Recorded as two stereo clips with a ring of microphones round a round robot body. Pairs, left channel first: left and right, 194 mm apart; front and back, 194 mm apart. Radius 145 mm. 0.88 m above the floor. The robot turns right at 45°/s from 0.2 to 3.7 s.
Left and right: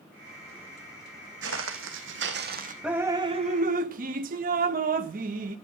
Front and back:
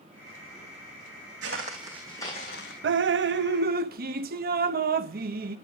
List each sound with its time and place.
1.4 s footsteps: 135° right, 1.7 m; by 2.7 s 45° right, 2.0 m
2.8 s dripping: 175° right, 0.7 m; by 5.6 s 140° right, 0.7 m